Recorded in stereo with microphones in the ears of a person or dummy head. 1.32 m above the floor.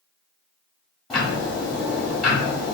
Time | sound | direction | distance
1.1 | ticking | centre (ahead or behind) | 1.2 m